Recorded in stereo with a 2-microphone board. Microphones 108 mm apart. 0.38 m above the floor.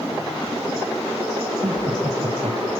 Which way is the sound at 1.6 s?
65° right (ahead or behind).